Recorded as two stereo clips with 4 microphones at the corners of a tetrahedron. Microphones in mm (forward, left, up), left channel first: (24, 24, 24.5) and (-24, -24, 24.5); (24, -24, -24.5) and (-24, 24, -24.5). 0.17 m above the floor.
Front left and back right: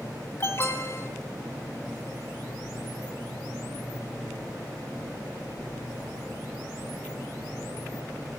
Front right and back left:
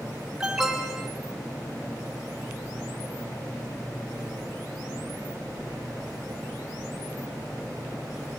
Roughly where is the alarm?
Ahead left.